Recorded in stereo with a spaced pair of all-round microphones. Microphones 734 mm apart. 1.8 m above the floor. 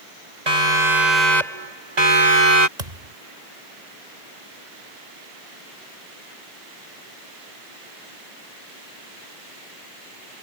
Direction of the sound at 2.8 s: 70° right (ahead or behind).